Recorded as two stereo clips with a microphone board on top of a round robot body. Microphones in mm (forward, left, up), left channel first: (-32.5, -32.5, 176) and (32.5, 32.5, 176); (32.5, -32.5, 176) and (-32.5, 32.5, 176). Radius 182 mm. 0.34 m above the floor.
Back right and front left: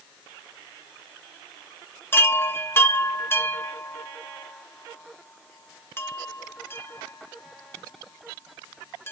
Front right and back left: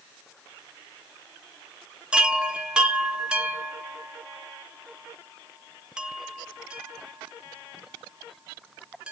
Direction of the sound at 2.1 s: 155° right.